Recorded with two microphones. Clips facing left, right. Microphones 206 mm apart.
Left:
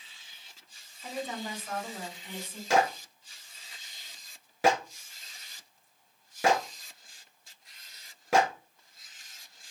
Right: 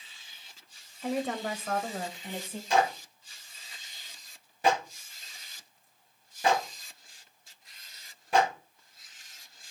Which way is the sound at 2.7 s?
80° left.